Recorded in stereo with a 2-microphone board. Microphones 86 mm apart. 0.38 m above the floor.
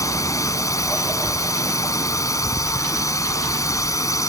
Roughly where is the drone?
Left.